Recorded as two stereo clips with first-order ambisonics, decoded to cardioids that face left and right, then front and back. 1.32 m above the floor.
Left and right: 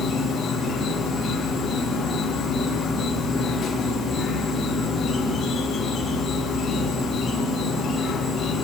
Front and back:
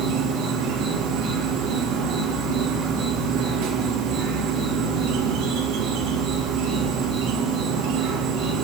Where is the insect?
160° left, 5 m.